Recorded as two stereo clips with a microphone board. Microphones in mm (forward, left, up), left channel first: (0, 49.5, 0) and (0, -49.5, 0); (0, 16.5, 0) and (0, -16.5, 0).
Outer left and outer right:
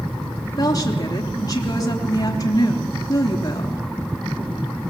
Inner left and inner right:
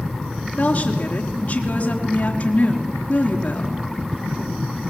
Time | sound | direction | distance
0.6 | a woman speaking | 35° left (ahead or behind) | 3.5 m